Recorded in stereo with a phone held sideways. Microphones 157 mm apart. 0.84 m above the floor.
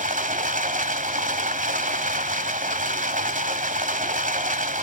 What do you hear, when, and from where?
0.0 s running water: 55° right (ahead or behind), 0.9 m